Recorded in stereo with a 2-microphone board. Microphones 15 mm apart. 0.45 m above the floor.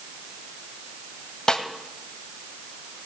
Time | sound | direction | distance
1.5 | a snare drum | 50° left (ahead or behind) | 1.2 m